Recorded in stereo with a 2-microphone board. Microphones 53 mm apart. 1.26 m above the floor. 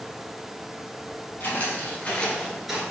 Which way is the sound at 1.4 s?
45° left (ahead or behind).